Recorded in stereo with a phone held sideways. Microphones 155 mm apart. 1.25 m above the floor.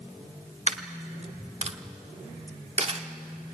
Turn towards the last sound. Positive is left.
turn(degrees=-45)  # may be behind; listen again after turning